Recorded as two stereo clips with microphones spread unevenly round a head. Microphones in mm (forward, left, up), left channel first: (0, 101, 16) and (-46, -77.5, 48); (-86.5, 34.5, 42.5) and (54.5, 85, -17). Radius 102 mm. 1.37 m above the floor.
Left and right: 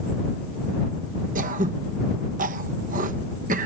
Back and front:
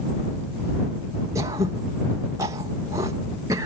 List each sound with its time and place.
1.4 s throat clearing: 50° right